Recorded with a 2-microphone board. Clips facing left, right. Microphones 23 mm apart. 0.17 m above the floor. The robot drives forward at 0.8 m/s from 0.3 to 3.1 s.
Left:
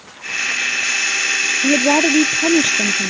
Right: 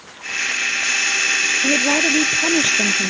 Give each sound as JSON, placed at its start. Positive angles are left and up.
{"t": 1.6, "sound": "a woman speaking", "side_deg": 50}